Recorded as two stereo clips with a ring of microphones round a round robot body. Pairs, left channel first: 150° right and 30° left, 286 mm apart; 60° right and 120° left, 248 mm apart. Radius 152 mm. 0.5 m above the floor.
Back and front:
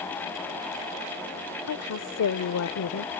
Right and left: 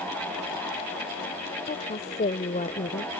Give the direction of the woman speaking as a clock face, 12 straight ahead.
4 o'clock.